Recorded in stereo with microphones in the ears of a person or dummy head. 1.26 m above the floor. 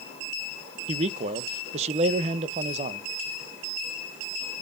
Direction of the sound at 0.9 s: 35° right (ahead or behind).